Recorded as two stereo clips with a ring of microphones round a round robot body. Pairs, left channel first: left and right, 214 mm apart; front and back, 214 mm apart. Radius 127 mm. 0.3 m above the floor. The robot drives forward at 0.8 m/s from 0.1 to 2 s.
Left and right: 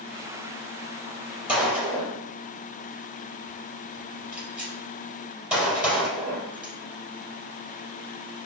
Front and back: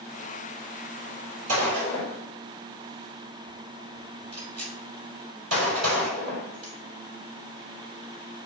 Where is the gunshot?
175° right, 4 m.